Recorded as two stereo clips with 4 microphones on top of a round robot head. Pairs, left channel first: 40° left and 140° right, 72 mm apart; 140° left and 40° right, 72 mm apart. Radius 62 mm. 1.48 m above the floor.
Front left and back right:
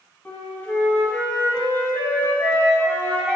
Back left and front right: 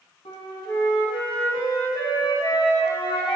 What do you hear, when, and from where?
0.2 s a flute: 105° left, 3 m